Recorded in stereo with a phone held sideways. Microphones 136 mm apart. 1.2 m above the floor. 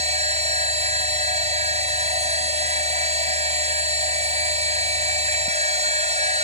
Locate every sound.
0.0 s a machine running: 55° right (ahead or behind)